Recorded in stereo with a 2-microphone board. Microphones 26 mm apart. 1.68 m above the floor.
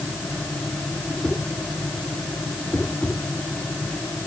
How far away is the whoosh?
About 7 m.